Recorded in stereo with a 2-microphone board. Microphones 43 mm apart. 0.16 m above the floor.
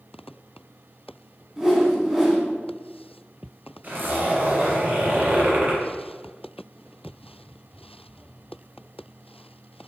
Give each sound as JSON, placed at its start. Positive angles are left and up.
{"t": 1.6, "sound": "a whoosh", "side_deg": -5, "distance_m": 1.2}
{"t": 3.8, "sound": "a zipper", "side_deg": -35, "distance_m": 1.3}